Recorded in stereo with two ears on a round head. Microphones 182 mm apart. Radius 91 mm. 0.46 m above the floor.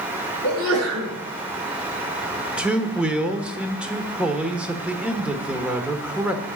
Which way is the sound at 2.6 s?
5° right (ahead or behind).